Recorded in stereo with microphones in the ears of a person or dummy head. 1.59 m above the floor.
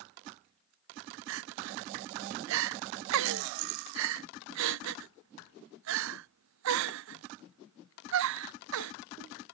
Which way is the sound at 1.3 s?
75° right (ahead or behind).